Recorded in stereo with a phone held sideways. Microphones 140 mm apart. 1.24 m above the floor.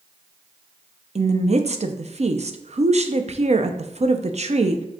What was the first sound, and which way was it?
A woman speaking, 50° right (ahead or behind).